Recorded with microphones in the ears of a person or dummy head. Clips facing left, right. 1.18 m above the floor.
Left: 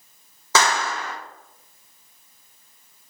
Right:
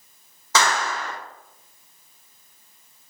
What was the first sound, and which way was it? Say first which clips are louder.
A clap: left 1 dB; 75° left (ahead or behind).